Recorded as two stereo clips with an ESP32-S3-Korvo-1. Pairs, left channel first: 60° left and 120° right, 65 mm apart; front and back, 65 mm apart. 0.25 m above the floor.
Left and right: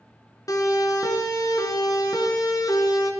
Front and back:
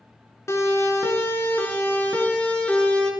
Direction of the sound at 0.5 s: 40° left.